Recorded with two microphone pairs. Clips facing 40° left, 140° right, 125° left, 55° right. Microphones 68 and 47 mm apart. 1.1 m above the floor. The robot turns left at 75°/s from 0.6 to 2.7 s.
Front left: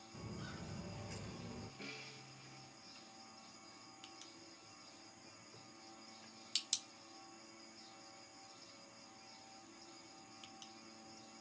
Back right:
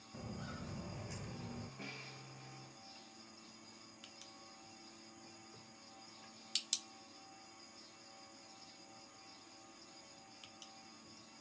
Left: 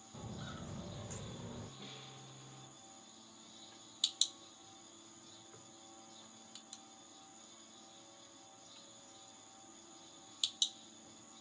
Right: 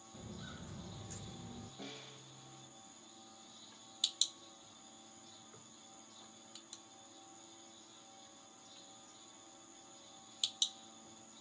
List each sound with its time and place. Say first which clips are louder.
0.1 s footsteps: back right 2 dB, left 3 dB; 160° left, 1.5 m; by 1.7 s 135° left, 1.5 m
1.8 s a snare drum: back right 2 dB, right 2 dB; 70° right, 1.6 m; by 2.2 s 100° right, 1.6 m